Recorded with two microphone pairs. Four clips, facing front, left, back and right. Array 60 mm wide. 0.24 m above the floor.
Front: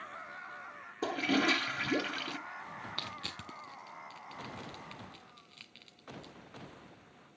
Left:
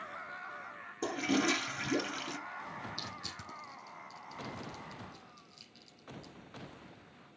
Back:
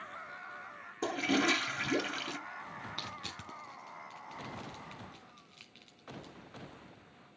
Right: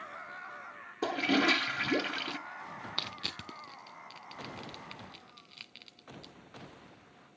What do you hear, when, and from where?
1.0 s a toilet flushing: 85° right, 0.9 m
3.0 s crushing: 80° right, 0.7 m